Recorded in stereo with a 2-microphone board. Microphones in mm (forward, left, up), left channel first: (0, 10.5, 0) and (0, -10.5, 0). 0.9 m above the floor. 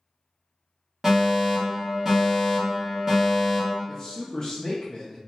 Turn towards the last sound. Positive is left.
turn(degrees=40)  # may be behind; listen again after turning